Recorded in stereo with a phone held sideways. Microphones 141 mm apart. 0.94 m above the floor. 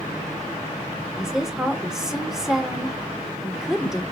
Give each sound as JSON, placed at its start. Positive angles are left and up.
{"t": 1.2, "sound": "a woman speaking", "side_deg": -5, "distance_m": 2.0}